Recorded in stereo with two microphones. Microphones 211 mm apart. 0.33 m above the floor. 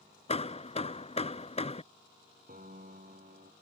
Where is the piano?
45° right (ahead or behind).